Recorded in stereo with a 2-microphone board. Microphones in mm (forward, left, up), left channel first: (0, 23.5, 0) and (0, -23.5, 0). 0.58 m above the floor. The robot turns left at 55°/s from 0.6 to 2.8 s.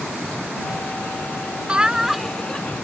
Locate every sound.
1.7 s laughter: 150° right; by 2.8 s 150° left